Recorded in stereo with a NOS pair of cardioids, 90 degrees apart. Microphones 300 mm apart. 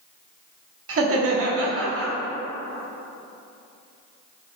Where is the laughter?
45° right, 1.2 m.